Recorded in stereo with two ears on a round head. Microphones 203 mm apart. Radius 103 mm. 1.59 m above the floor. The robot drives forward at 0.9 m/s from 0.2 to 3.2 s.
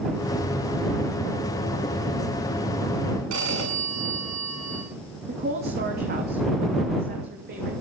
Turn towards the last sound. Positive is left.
turn(degrees=-45)  # may be behind; listen again after turning